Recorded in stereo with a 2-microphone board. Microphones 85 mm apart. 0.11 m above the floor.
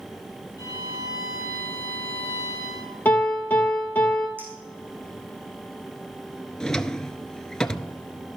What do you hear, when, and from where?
0.6 s a violin: 45° left (ahead or behind), 4 m
3.0 s a piano: 20° left (ahead or behind), 2.5 m
4.4 s a clink: 25° right (ahead or behind), 4.5 m
6.6 s a drawer: 10° left (ahead or behind), 0.6 m